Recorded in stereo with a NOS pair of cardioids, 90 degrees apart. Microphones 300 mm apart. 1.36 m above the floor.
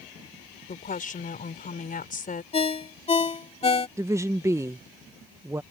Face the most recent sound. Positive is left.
turn(degrees=-10)